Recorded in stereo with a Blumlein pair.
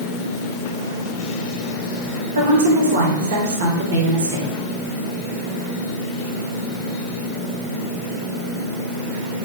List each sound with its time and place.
2.4 s a woman speaking: 60° right, 1.4 m